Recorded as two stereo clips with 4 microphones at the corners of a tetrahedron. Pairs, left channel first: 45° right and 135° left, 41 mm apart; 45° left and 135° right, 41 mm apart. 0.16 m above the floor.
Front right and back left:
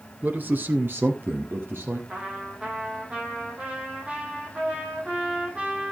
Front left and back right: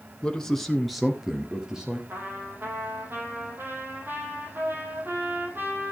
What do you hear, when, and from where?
0.2 s a man speaking: 110° left, 1.9 m; by 2.0 s 150° left, 4 m
2.1 s a trumpet: 165° right, 4.5 m